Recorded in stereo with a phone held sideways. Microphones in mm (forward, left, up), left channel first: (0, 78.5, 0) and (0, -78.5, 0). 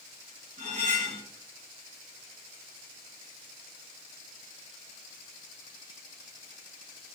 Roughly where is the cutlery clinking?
Centre.